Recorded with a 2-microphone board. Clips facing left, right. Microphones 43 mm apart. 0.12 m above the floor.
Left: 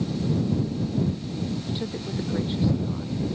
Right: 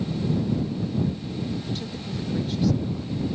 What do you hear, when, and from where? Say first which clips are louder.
1.7 s a woman speaking: left 1 dB; 20° left (ahead or behind)